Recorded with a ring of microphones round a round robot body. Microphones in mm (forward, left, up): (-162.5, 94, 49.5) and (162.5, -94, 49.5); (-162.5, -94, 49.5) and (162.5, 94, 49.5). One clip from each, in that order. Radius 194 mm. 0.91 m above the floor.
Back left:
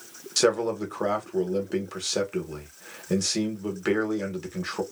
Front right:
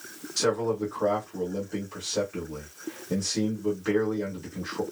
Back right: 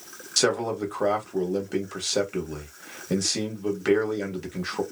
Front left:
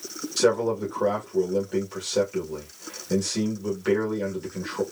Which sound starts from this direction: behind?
A man speaking, at 0.4 s.